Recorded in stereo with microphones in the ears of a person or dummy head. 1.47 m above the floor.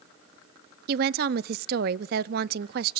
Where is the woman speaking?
55° right (ahead or behind), 0.5 m.